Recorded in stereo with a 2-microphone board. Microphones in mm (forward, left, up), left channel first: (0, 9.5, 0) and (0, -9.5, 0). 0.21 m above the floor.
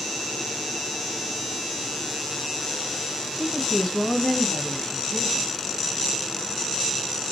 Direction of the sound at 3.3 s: 20° left (ahead or behind).